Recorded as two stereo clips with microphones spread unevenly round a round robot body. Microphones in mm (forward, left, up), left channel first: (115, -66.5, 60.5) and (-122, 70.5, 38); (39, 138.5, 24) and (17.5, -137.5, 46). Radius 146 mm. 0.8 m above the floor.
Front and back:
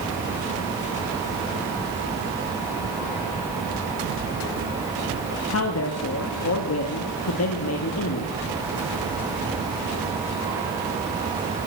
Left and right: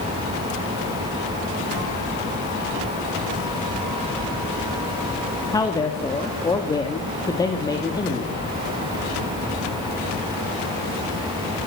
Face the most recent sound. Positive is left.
turn(degrees=10)